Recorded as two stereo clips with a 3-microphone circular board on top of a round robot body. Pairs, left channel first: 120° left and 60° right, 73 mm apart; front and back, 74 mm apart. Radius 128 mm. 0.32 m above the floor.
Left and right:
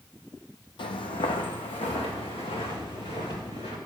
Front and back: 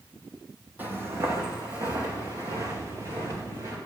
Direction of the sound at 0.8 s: 110° left.